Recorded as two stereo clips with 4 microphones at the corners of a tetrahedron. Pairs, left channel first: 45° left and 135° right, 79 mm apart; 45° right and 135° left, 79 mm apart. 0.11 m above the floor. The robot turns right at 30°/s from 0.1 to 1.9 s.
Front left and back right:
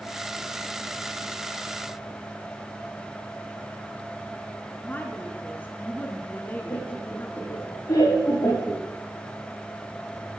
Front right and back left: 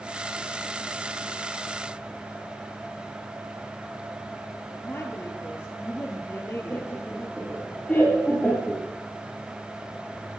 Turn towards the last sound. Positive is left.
turn(degrees=20)